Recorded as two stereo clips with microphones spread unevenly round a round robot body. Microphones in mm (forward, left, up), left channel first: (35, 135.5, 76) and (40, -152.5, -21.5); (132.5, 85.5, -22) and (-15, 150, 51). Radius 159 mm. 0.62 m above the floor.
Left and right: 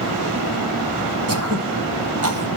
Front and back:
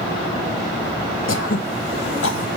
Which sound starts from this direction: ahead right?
Throat clearing, at 1.3 s.